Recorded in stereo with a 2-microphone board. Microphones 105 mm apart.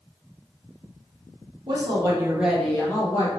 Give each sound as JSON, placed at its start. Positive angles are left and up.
{"t": 1.7, "sound": "a woman speaking", "side_deg": -50, "distance_m": 1.1}